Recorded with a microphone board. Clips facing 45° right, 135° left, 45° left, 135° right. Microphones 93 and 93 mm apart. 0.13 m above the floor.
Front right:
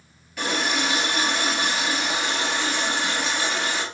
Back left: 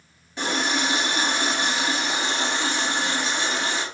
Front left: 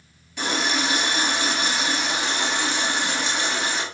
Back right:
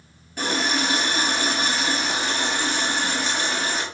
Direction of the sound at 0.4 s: 170° right.